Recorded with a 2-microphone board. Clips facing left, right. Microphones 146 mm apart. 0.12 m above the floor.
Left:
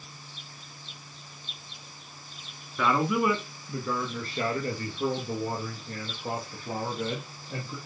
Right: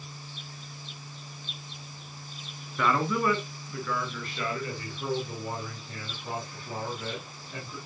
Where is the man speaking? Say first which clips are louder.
Left 1 dB; centre (ahead or behind), 1.3 m; by 7.8 s 50° left (ahead or behind), 4 m.